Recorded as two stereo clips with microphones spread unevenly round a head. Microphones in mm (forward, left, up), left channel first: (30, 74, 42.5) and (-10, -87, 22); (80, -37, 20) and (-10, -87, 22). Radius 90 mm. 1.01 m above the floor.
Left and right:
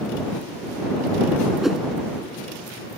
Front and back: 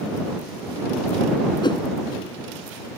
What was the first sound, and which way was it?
A whoosh, 15° right.